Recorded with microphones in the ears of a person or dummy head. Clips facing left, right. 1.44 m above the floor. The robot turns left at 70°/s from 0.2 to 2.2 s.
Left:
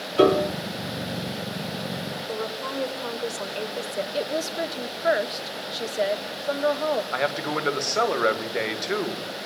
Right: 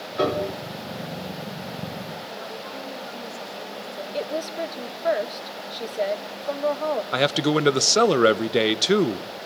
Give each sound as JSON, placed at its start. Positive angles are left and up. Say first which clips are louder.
{"t": 0.2, "sound": "a piano", "louder": "left 6 dB", "side_deg": 40, "distance_m": 3.5}
{"t": 2.3, "sound": "a woman speaking", "louder": "left 5 dB", "side_deg": 85, "distance_m": 4.5}
{"t": 4.1, "sound": "a woman speaking", "louder": "right 1 dB", "side_deg": 10, "distance_m": 1.5}
{"t": 7.1, "sound": "a man speaking", "louder": "right 5 dB", "side_deg": -40, "distance_m": 1.4}